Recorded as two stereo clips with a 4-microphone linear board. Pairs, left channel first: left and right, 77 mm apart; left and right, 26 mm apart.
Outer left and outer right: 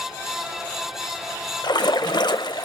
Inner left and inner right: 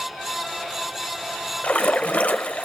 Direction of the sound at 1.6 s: 70° left (ahead or behind).